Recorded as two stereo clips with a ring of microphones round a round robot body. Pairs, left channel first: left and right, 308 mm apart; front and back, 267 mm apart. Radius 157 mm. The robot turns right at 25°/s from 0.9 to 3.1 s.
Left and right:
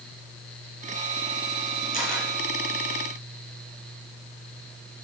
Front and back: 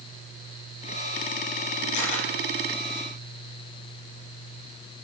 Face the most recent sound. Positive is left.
turn(degrees=25)